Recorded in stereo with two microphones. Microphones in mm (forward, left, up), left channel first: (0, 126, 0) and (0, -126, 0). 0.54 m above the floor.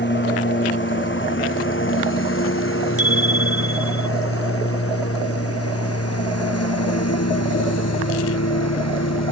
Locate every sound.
0.0 s a lawn mower: 45° left (ahead or behind); by 9.3 s 85° left
3.0 s a bicycle bell: 65° right (ahead or behind)